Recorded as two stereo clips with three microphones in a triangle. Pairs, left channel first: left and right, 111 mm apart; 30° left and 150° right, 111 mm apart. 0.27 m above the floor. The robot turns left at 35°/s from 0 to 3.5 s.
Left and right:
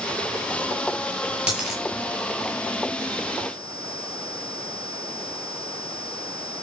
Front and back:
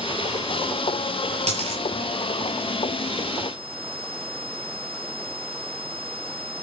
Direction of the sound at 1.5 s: 170° right.